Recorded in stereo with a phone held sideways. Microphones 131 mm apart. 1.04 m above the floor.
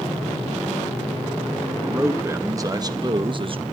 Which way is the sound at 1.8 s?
15° right (ahead or behind).